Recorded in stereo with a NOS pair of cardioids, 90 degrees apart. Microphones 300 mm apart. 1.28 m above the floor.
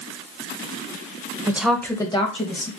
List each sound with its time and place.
1.5 s a woman speaking: 10° right, 0.9 m; by 2.7 s 25° left, 1.9 m